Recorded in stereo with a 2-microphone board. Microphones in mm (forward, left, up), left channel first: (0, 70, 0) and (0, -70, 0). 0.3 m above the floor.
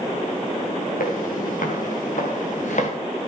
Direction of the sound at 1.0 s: 80° left.